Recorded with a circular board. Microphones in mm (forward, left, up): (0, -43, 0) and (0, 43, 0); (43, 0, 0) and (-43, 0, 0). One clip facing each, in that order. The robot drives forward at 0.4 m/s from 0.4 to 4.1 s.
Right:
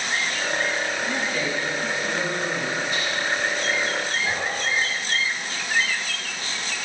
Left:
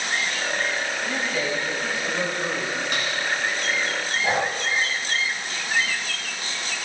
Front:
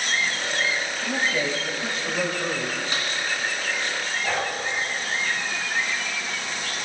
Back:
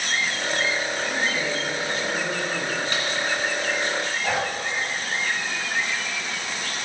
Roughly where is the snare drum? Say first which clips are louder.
Even, back 2 dB; left.